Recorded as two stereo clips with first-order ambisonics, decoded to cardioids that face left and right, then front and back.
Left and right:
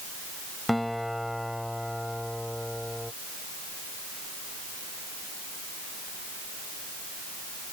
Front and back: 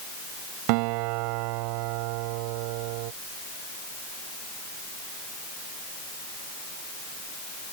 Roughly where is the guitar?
Behind.